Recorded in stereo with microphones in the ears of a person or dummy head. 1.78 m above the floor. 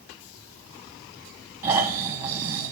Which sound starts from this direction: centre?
Snoring, at 1.6 s.